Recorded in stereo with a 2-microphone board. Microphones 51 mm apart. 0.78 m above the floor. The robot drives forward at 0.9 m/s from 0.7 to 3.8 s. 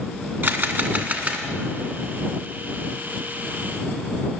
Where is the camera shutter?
45° right (ahead or behind), 1.3 m; by 1.4 s 30° right (ahead or behind), 1.8 m.